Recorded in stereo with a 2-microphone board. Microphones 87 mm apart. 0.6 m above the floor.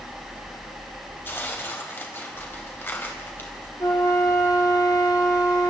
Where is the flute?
40° left (ahead or behind), 4.5 m.